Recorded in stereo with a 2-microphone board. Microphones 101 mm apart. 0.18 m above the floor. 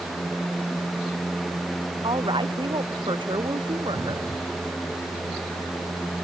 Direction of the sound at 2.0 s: 50° right (ahead or behind).